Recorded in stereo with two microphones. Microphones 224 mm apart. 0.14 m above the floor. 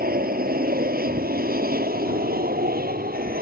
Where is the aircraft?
40° right (ahead or behind).